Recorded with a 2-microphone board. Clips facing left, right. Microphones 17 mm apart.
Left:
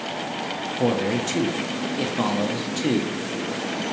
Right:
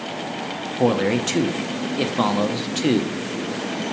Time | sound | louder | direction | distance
0.8 | a man speaking | right 4 dB | 25° right (ahead or behind) | 0.6 m